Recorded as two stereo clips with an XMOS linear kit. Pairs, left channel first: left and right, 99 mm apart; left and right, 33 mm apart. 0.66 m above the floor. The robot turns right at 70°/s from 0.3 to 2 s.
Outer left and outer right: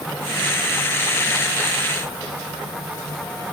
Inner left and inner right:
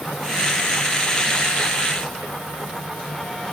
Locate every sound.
Only background noise.